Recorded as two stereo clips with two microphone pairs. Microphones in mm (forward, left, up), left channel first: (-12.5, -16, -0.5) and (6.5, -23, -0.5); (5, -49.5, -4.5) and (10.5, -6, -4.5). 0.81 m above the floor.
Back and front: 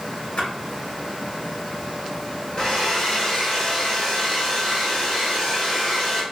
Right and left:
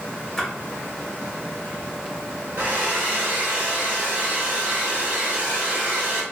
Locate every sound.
0.4 s a splash: straight behind, 1.4 m
2.6 s a hair dryer: 120° left, 1.4 m